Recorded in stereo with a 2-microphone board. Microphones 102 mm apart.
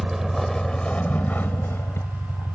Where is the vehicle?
5° right (ahead or behind); by 2.5 s 35° left (ahead or behind).